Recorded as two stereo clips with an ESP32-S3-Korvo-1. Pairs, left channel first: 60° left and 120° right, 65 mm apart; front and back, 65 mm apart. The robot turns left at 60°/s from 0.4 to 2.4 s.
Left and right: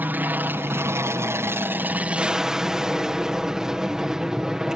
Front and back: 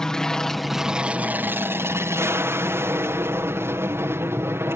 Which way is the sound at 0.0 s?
75° right.